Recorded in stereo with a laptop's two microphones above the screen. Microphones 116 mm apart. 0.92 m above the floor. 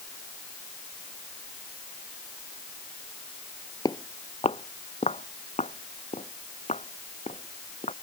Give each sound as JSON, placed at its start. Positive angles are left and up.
{"t": 3.9, "sound": "footsteps", "side_deg": 35}